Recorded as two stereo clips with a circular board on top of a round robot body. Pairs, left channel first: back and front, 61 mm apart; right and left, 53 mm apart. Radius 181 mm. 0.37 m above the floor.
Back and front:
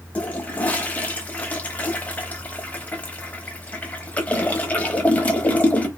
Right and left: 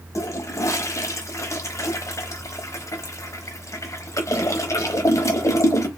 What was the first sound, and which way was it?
A toilet flushing, 115° right.